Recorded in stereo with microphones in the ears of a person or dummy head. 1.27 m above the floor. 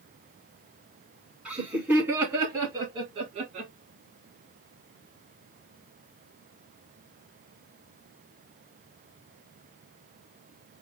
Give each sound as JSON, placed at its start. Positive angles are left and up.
{"t": 1.4, "sound": "laughter", "side_deg": -5, "distance_m": 3.5}